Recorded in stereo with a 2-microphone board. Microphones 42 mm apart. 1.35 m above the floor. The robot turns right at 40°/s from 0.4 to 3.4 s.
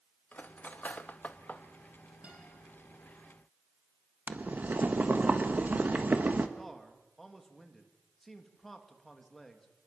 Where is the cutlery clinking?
40° left (ahead or behind), 0.8 m; by 1.6 s 35° left (ahead or behind), 0.8 m.